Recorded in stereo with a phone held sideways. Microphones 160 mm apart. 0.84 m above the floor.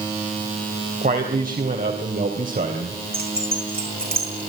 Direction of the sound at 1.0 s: 60° right (ahead or behind).